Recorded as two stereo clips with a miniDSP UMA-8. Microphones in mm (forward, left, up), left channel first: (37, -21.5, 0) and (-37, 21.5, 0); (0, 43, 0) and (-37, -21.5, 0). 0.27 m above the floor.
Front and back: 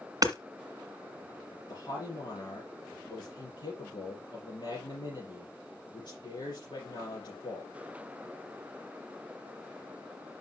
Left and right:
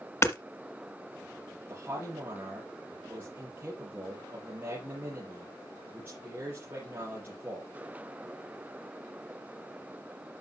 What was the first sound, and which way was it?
Hammering, 110° left.